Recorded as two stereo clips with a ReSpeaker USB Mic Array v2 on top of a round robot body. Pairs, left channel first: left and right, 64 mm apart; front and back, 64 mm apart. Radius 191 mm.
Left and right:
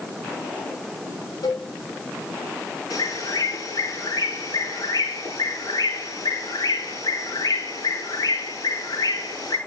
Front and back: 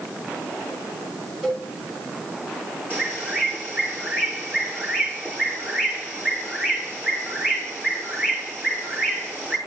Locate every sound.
1.4 s a cowbell: 105° left, 7.5 m
2.9 s a bird: 115° left, 9 m